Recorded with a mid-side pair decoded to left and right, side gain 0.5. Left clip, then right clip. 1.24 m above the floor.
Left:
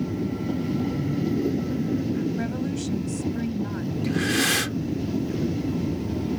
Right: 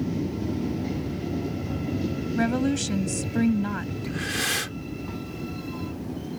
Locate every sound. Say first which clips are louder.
2.4 s a woman speaking: right 4 dB; 50° right
4.0 s breathing: left 5 dB; 20° left